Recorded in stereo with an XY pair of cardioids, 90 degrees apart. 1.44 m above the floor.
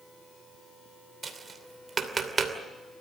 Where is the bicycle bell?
No bicycle bell in this recording.